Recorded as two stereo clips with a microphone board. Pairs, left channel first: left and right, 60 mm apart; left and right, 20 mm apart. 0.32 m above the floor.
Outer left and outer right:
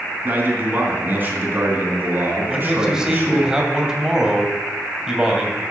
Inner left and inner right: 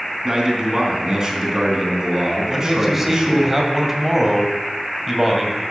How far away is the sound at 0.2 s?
About 3 m.